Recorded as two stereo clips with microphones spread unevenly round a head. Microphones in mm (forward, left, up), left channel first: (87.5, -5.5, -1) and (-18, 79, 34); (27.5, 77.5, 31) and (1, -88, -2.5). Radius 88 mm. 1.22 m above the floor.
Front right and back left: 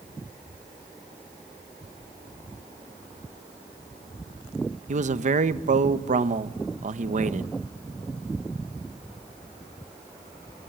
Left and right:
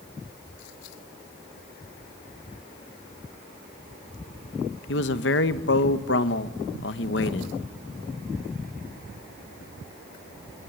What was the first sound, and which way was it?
A man speaking, 110° left.